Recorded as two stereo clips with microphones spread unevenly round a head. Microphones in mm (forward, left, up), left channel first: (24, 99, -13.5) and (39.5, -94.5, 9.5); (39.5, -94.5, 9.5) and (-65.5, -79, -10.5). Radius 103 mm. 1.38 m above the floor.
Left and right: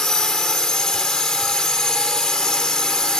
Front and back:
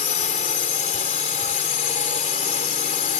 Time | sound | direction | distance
0.0 | a drone | 5° left | ?